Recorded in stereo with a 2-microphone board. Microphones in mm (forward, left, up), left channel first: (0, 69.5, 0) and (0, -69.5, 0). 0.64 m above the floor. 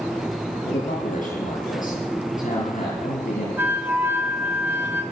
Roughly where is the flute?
Centre.